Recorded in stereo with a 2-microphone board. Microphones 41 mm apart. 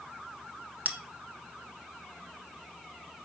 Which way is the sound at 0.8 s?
40° right (ahead or behind).